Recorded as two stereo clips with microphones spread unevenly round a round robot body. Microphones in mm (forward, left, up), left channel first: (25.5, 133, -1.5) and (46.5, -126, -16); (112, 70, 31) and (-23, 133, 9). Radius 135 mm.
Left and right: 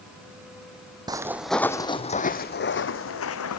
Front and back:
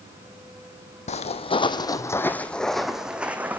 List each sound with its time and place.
1.1 s footsteps: 10° right, 1.3 m; by 3.6 s 75° left, 2 m